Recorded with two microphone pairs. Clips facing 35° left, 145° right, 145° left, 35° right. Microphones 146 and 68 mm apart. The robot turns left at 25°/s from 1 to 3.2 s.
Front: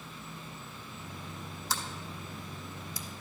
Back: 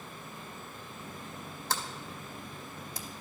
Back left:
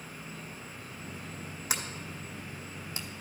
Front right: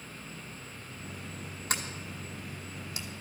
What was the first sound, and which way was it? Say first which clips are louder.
An insect: back 1 dB, back left 1 dB; 120° left.